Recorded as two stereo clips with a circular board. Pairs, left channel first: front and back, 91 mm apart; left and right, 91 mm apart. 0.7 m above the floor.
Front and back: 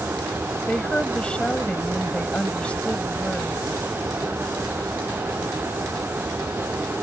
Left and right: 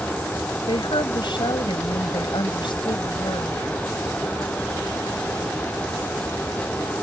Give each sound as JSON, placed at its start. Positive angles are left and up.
{"t": 0.7, "sound": "a woman speaking", "azimuth_deg": 75}